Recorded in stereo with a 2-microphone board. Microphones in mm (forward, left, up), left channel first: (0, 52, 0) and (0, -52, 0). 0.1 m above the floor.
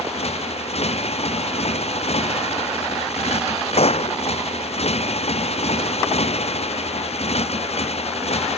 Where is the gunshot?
80° left.